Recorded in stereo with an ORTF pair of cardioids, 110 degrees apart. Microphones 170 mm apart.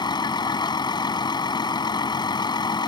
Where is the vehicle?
25° left.